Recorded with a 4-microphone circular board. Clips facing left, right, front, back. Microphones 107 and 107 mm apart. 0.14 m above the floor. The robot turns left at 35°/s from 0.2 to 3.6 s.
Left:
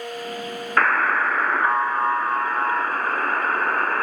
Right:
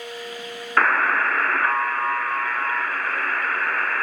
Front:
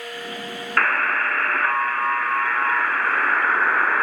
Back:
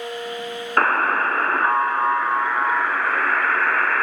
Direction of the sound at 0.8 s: Straight behind.